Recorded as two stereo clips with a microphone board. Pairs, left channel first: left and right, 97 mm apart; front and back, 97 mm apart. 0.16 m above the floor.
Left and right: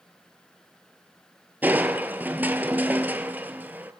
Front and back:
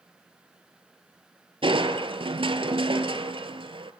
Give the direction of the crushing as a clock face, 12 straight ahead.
5 o'clock.